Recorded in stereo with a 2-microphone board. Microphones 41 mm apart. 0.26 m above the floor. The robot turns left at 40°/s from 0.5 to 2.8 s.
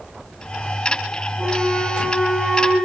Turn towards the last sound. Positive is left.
turn(degrees=-40)